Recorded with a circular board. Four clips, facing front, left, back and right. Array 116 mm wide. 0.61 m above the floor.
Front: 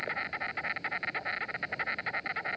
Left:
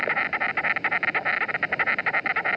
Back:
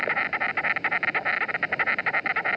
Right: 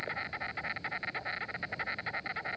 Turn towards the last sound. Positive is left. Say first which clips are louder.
# left 13 dB, back 9 dB
turn(degrees=130)